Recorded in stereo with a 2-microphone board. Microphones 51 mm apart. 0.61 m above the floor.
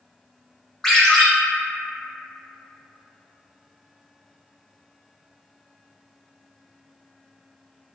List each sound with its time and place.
0.8 s a ringtone: 10° left (ahead or behind), 0.7 m